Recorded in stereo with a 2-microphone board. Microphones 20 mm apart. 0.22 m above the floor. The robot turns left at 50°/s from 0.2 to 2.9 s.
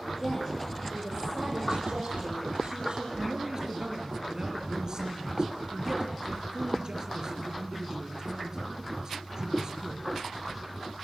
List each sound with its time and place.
0.2 s a woman speaking: 5° left, 6 m; by 3.1 s 130° right, 6 m
3.2 s a man speaking: 40° right (ahead or behind), 4.5 m